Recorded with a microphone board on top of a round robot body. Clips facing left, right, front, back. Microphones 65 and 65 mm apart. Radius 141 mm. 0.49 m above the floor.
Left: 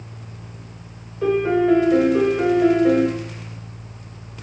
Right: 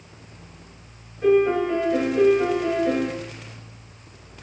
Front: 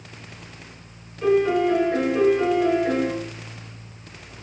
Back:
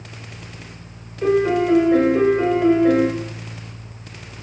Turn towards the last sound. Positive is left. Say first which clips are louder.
# even, back 2 dB
turn(degrees=105)